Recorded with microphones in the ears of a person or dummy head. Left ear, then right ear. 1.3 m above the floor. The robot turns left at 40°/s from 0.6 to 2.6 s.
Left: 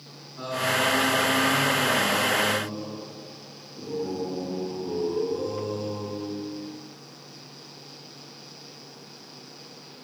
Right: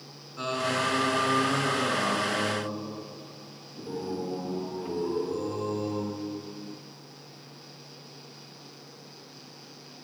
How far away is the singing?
About 6 m.